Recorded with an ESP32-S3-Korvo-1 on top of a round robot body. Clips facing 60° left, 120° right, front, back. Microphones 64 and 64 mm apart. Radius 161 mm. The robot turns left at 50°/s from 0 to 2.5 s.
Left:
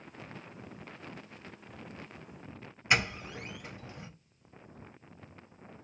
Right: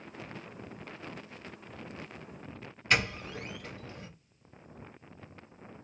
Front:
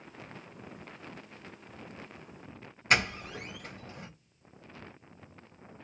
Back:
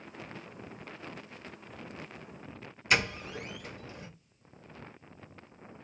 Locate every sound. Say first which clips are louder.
2.9 s a doorbell: even, front 1 dB; 10° right, 1.4 m